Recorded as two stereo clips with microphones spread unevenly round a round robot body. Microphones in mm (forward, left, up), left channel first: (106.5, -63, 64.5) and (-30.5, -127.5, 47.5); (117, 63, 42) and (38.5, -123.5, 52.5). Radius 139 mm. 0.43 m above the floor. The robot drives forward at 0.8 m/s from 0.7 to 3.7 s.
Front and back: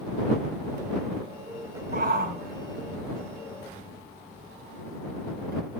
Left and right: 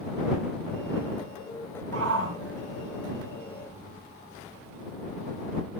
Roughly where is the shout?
Behind right.